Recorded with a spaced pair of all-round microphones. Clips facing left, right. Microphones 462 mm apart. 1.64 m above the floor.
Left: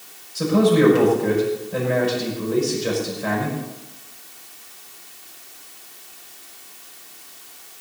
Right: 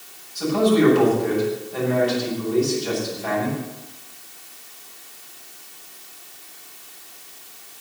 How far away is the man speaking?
About 6 m.